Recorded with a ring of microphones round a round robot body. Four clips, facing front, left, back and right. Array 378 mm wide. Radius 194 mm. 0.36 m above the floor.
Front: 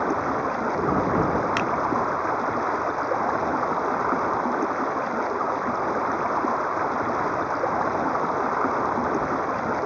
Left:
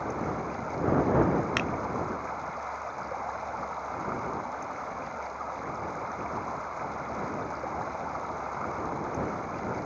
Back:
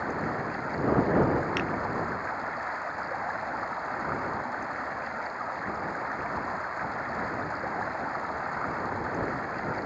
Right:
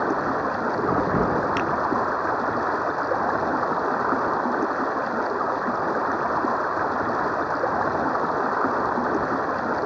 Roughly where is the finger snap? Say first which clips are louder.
Right 7 dB, front 6 dB; ahead left.